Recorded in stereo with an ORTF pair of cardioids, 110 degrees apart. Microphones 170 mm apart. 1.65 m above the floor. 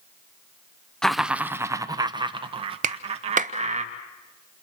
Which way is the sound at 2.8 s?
50° right.